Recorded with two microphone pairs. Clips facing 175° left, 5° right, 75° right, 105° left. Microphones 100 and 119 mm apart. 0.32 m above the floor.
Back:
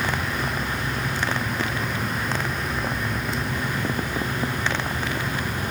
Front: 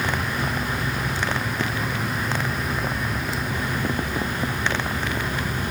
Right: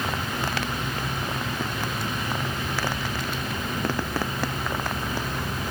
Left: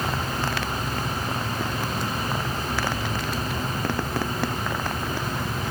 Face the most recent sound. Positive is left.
No sound to turn to.